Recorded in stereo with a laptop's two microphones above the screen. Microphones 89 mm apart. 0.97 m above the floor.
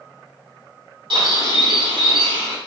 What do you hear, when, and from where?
1.1 s a bird: 65° right (ahead or behind), 1.1 m